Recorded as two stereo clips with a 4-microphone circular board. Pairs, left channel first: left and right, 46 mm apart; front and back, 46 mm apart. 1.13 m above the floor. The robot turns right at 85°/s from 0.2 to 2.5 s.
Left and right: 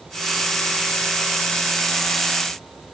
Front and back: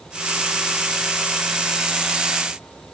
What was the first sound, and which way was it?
Only background noise.